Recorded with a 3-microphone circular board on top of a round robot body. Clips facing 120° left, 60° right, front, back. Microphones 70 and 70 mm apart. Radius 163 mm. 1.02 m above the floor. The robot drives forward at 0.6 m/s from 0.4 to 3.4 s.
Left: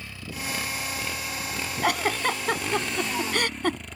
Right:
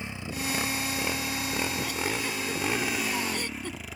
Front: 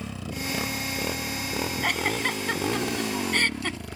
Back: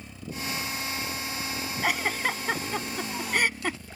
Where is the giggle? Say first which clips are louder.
Left 6 dB, back 1 dB; 95° left; by 3.8 s 100° left.